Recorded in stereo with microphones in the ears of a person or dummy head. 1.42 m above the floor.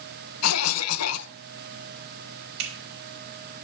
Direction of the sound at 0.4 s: 80° left.